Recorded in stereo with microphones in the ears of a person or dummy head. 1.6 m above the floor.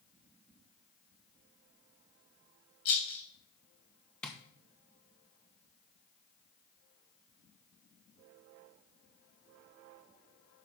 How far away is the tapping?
About 1.2 m.